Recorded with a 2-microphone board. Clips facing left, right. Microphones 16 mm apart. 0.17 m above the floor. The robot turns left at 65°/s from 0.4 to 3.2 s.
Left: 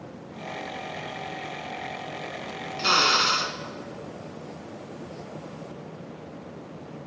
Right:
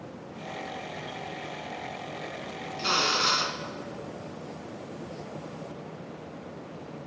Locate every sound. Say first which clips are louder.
2.8 s a drill: left 4 dB; 30° left (ahead or behind), 1.4 m; by 3.6 s 40° left (ahead or behind), 1.4 m